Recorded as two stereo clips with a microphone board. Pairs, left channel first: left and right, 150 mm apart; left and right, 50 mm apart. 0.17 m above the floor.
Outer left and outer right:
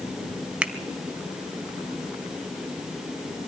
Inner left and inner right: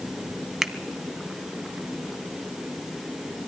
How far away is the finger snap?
About 0.8 m.